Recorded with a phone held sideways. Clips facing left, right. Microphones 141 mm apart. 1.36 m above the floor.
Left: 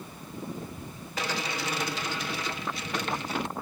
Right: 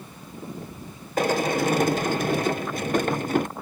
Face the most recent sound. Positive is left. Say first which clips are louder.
# right 11 dB
turn(degrees=-50)  # may be behind; listen again after turning